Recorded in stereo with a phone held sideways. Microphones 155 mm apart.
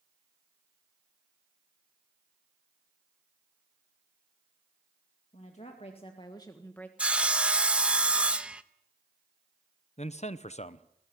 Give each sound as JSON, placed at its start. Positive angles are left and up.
{"t": 5.3, "sound": "a woman speaking", "side_deg": 50, "distance_m": 2.0}
{"t": 7.0, "sound": "sawing", "side_deg": -5, "distance_m": 0.6}
{"t": 10.0, "sound": "a man speaking", "side_deg": 45, "distance_m": 0.8}